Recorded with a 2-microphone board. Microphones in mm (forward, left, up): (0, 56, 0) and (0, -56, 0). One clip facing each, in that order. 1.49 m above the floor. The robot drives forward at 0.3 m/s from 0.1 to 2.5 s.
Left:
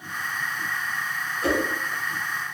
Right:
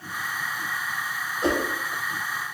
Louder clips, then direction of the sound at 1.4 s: Even; 25° right (ahead or behind).